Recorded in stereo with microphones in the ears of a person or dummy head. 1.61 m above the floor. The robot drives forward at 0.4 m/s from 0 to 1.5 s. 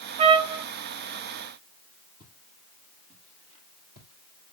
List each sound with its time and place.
0.2 s a trumpet: 25° right (ahead or behind), 0.5 m; by 0.6 s 20° right (ahead or behind), 0.7 m
2.2 s footsteps: 10° right (ahead or behind), 2.5 m; by 4.5 s 50° right (ahead or behind), 2.5 m